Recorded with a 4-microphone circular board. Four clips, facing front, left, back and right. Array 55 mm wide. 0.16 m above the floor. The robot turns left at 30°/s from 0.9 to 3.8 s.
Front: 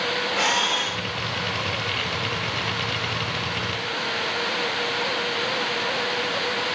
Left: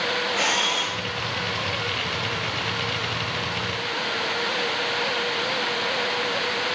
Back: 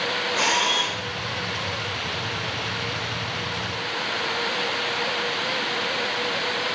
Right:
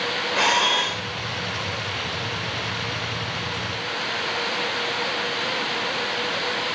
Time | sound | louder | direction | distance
0.3 | a camera shutter | right 7 dB, back 1 dB | 110° right | 5 m